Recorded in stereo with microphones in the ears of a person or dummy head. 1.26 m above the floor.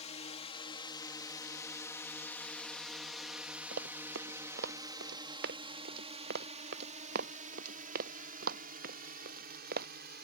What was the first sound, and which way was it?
A drone, 30° left (ahead or behind).